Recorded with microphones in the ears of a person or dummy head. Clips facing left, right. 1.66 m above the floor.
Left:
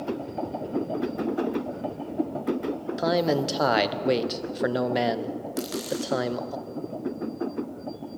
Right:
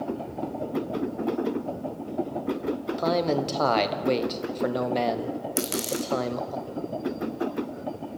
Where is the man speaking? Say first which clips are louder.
Left 2 dB; 10° left (ahead or behind), 1.1 m.